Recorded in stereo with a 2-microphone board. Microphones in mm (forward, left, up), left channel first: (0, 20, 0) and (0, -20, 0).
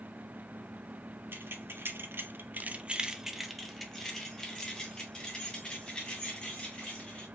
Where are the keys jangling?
70° right (ahead or behind), 0.8 m; by 7.3 s 30° left (ahead or behind), 2.5 m.